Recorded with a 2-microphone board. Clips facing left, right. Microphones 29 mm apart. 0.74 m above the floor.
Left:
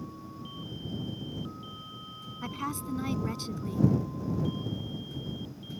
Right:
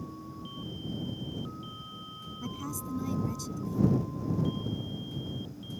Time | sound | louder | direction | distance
2.4 | a woman speaking | left 4 dB | 50° left (ahead or behind) | ?